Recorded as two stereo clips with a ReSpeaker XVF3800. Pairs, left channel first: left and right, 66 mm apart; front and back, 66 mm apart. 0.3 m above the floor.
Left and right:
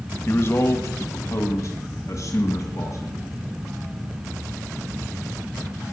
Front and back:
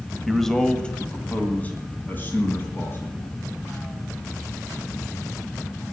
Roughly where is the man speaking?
Left.